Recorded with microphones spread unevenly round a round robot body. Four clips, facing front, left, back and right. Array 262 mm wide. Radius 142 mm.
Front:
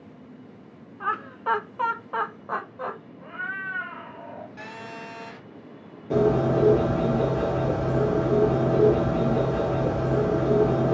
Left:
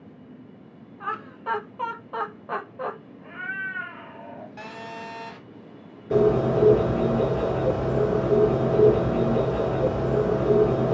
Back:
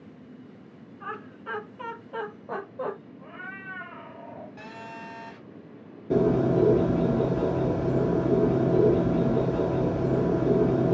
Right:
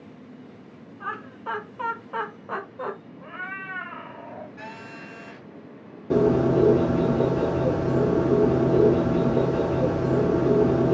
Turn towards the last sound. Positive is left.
turn(degrees=-115)